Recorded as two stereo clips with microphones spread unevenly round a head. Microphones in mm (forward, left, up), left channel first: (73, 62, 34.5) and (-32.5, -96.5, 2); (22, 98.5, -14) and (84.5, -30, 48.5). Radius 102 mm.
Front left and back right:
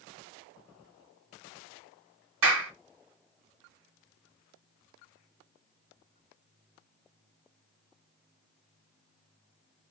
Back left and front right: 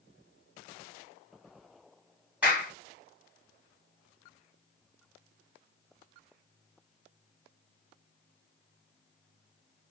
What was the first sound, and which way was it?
A clap, 145° right.